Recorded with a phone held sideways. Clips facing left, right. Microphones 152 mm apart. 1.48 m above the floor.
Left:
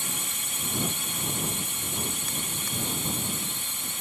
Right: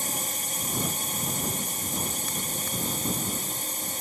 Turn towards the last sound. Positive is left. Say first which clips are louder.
# right 4 dB
turn(degrees=-40)  # may be behind; listen again after turning